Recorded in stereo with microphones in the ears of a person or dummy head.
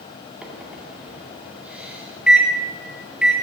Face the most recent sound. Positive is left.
turn(degrees=-5)  # may be behind; listen again after turning